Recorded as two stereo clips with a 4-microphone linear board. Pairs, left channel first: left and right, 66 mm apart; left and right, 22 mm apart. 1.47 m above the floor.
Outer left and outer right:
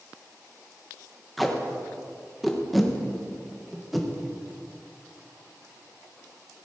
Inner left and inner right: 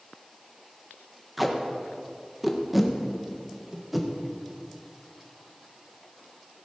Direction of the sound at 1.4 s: Centre (ahead or behind).